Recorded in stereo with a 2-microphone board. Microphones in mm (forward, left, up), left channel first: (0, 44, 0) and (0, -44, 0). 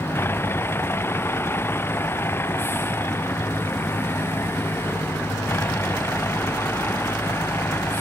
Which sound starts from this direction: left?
A vehicle, at 0.0 s.